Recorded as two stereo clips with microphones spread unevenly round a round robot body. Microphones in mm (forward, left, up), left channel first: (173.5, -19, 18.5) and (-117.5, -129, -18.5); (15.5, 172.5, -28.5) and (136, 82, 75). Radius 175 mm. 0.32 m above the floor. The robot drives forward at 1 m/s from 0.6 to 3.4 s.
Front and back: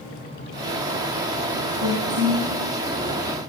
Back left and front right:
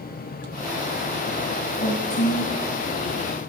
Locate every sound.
1.7 s a woman speaking: 150° left, 2.5 m; by 2.5 s 160° left, 3.5 m